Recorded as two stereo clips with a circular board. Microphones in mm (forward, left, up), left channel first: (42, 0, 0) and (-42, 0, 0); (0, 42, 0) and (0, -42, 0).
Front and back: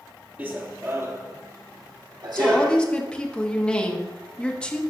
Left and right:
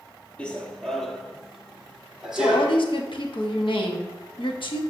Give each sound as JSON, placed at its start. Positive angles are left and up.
{"t": 0.4, "sound": "running footsteps", "azimuth_deg": 145, "distance_m": 1.0}
{"t": 2.4, "sound": "a woman speaking", "azimuth_deg": 80, "distance_m": 1.1}